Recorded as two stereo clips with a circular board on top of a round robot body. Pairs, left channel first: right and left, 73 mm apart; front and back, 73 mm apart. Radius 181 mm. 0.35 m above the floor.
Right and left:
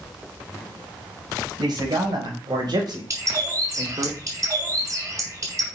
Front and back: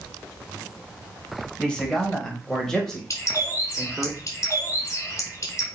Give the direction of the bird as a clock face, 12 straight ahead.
10 o'clock.